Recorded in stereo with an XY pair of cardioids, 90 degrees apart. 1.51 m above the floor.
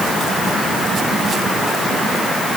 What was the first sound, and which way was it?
Only background noise.